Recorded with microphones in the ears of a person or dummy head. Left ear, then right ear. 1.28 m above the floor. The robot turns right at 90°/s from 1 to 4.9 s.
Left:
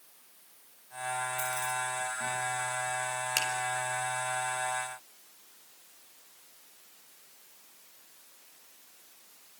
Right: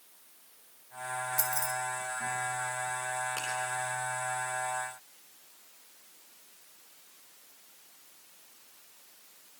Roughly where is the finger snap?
Left.